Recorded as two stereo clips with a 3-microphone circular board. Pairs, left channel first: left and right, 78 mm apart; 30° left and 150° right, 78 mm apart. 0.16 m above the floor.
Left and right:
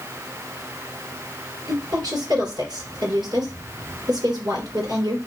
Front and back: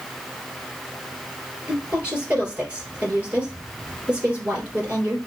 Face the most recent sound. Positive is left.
turn(degrees=-80)